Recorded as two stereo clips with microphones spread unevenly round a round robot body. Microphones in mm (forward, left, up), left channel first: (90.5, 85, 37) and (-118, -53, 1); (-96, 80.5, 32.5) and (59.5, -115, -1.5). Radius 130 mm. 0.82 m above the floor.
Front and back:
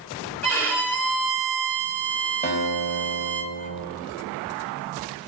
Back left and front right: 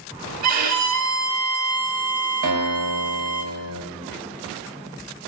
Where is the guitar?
35° right, 3 m.